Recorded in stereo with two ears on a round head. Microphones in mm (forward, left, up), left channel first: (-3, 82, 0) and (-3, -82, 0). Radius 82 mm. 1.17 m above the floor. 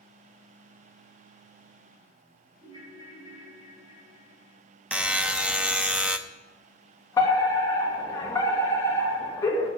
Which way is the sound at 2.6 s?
25° right (ahead or behind).